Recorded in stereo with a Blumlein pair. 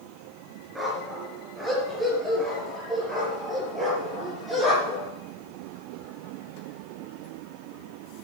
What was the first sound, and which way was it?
A dog barking, 10° right.